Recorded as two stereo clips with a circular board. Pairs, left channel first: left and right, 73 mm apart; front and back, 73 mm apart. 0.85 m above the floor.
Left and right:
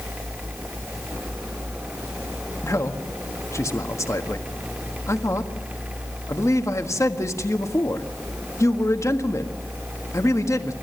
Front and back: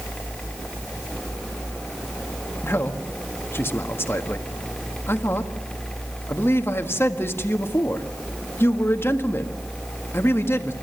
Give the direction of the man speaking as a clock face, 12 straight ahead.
10 o'clock.